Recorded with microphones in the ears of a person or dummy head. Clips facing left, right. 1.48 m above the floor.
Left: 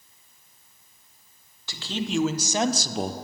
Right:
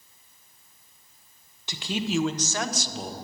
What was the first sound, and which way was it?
A man speaking, 20° right (ahead or behind).